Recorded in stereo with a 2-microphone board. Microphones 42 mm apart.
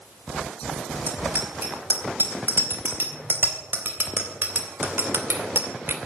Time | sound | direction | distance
1.1 | a bicycle bell | 55° right (ahead or behind) | 5 m